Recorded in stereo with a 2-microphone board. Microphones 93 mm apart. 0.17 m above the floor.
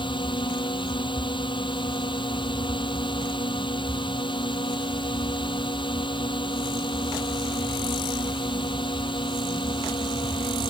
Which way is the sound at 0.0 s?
60° left (ahead or behind).